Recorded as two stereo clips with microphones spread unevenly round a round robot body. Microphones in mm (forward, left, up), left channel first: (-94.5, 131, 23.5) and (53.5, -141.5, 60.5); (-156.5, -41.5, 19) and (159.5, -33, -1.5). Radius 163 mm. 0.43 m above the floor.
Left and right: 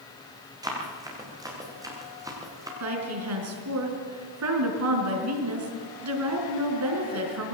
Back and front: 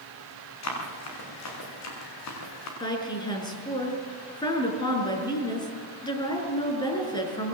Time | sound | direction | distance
0.6 | running footsteps | 140° right | 7.5 m
2.8 | a woman speaking | 100° right | 5 m